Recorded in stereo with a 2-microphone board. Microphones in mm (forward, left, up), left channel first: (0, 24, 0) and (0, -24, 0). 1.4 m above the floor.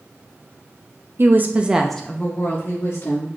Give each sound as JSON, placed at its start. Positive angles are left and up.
{"t": 1.2, "sound": "a woman speaking", "side_deg": -55, "distance_m": 0.8}